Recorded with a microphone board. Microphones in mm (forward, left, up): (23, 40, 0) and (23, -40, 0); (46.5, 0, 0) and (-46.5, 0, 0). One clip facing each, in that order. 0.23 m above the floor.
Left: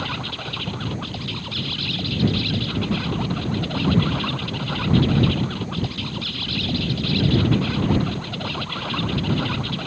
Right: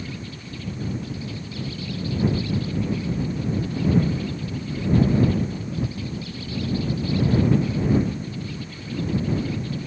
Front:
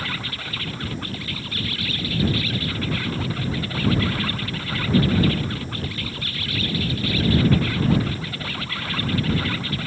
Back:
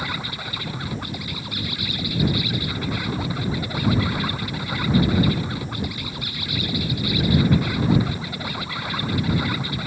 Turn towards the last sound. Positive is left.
turn(degrees=105)